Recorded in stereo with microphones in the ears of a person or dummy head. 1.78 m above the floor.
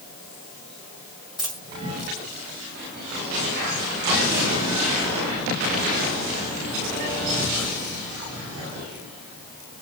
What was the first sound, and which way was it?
A dropped coin, 20° left (ahead or behind).